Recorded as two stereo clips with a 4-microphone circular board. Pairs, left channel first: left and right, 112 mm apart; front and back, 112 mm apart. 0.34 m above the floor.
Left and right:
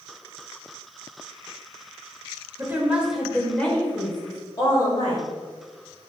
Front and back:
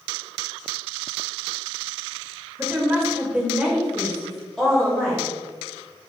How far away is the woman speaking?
About 1.6 m.